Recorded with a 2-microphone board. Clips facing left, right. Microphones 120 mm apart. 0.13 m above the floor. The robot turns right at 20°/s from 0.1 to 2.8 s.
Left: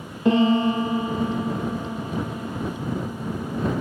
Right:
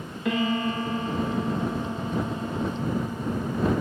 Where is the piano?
145° left; by 3.8 s 165° right.